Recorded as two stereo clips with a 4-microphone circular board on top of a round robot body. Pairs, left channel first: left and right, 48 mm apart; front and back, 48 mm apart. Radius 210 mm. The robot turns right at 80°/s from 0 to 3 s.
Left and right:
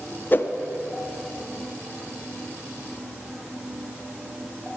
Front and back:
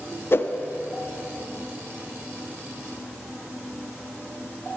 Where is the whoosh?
40° left, 0.5 m; by 0.5 s 55° left, 0.5 m.